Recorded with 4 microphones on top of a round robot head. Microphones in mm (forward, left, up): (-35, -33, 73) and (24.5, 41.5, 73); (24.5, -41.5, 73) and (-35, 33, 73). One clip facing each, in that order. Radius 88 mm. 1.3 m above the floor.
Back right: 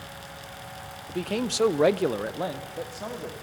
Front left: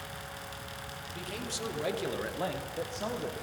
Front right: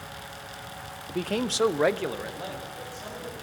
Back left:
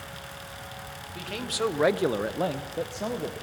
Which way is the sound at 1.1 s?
90° right.